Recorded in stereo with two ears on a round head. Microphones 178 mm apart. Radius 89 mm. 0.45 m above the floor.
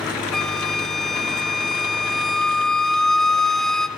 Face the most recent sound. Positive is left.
turn(degrees=0)  # may be behind; listen again after turning